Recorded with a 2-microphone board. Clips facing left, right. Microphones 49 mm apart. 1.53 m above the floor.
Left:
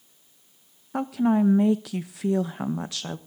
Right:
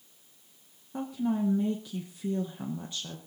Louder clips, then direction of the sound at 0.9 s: Left 8 dB; 85° left.